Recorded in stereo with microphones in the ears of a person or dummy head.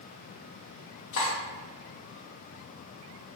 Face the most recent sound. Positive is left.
turn(degrees=60)  # may be behind; listen again after turning